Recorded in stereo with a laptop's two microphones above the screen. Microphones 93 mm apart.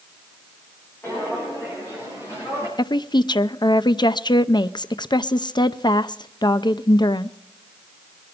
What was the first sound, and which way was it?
Footsteps, 25° left (ahead or behind).